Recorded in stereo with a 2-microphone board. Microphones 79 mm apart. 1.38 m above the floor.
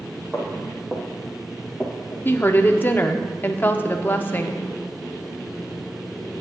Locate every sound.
0.3 s footsteps: 20° right (ahead or behind), 2.5 m; by 2.3 s 15° left (ahead or behind), 1.4 m
2.2 s a woman speaking: 25° left (ahead or behind), 0.6 m